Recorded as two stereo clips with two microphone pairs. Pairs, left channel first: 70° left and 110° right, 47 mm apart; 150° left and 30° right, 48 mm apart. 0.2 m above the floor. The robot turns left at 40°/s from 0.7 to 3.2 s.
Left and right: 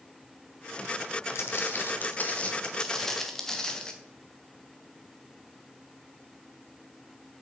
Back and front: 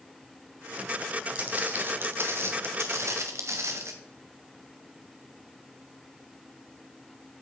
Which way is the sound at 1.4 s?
35° left.